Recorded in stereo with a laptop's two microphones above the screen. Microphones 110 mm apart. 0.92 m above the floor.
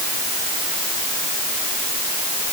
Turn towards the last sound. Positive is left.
No sound to turn to.